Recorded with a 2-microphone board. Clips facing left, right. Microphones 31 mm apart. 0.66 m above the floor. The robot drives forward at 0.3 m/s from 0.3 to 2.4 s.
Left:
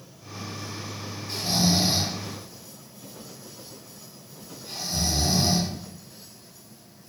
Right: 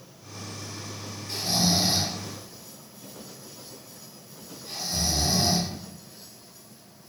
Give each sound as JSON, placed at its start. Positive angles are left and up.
{"t": 1.3, "sound": "snoring", "side_deg": 0, "distance_m": 1.0}